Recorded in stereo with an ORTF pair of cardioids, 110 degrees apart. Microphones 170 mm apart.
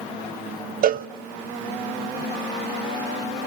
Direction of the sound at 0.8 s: 55° right.